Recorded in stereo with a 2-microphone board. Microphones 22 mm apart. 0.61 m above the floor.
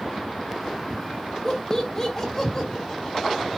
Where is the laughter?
25° left (ahead or behind), 2 m.